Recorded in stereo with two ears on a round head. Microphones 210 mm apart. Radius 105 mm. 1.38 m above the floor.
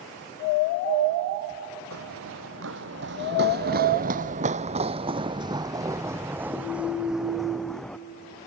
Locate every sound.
1.9 s running footsteps: 65° right (ahead or behind); by 8.0 s 5° left (ahead or behind)